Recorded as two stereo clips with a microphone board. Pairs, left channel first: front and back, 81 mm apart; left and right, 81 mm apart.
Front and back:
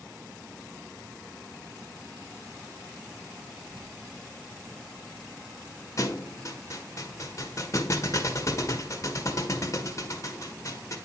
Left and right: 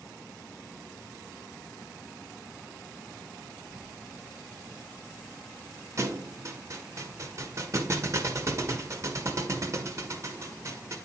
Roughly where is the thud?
Ahead right.